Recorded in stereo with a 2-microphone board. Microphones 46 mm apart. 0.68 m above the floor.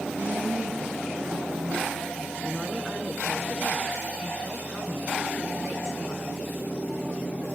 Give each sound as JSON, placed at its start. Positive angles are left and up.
{"t": 0.2, "sound": "a woman speaking", "side_deg": -70, "distance_m": 10.0}
{"t": 2.4, "sound": "a woman speaking", "side_deg": -15, "distance_m": 9.0}